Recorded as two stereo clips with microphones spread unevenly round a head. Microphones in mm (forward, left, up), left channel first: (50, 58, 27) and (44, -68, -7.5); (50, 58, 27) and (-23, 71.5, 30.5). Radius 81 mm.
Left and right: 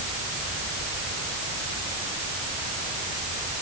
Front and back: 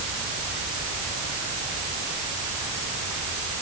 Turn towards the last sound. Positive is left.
No sound to turn to.